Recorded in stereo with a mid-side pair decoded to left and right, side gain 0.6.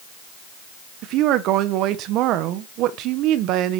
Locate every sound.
1.0 s a woman speaking: 65° right, 1.5 m